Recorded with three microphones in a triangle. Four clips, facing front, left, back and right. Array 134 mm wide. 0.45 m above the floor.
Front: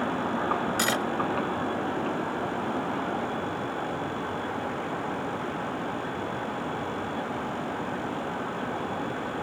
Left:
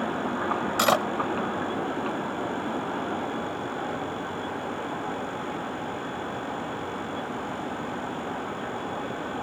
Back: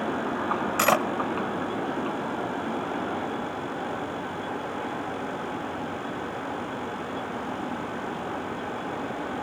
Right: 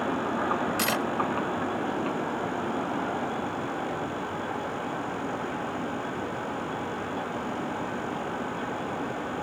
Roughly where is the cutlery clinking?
Behind left.